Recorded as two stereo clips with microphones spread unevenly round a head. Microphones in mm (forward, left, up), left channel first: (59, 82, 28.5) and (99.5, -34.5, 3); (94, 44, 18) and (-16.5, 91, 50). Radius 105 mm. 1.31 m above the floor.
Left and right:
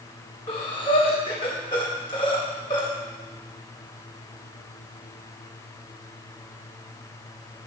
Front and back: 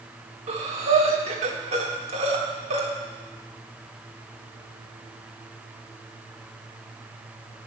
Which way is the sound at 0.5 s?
165° left.